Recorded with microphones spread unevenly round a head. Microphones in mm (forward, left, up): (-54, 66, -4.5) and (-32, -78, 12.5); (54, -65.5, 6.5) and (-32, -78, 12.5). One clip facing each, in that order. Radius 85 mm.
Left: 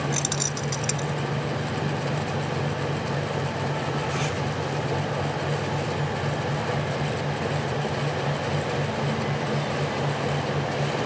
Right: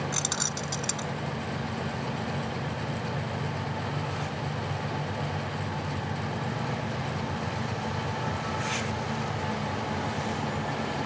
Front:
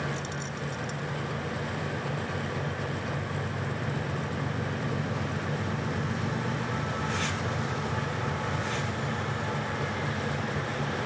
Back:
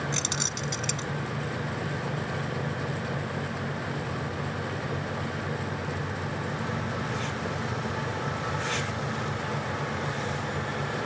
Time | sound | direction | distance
0.1 | keys jangling | 170° left | ?